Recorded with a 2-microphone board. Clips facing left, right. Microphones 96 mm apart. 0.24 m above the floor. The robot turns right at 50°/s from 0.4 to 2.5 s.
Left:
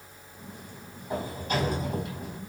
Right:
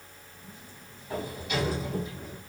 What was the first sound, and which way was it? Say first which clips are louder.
A sliding door: left 2 dB; 20° left.